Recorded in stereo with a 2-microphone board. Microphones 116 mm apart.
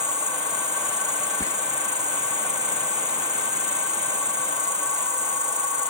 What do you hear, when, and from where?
0.0 s an insect: 80° right
1.4 s whispering: 30° left (ahead or behind)